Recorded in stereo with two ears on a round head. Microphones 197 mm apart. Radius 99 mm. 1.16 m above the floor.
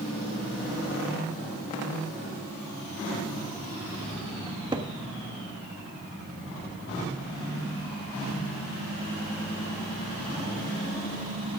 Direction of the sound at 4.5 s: 20° right (ahead or behind).